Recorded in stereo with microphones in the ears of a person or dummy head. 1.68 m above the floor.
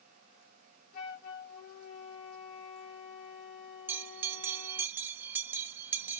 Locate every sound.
0.9 s a flute: 50° left (ahead or behind), 0.9 m
3.9 s a bell: 10° right (ahead or behind), 0.6 m